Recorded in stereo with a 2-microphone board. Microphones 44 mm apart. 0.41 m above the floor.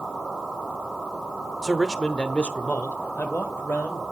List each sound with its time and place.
1.6 s a man speaking: centre (ahead or behind), 0.9 m; by 4.0 s 60° left (ahead or behind), 1.7 m